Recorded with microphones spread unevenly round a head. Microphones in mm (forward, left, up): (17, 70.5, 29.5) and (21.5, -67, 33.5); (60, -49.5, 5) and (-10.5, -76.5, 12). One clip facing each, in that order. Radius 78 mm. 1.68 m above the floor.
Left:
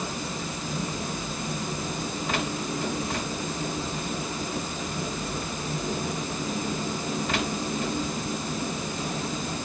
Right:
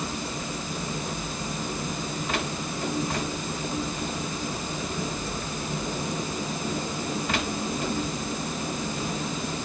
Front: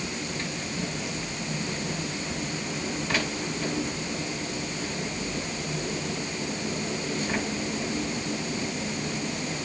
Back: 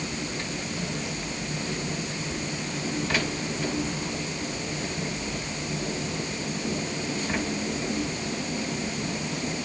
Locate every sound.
Only background noise.